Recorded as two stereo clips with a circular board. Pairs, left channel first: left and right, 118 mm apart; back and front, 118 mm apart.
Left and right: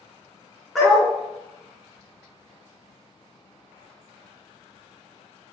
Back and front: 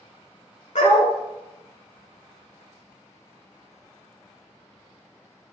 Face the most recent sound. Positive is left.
turn(degrees=180)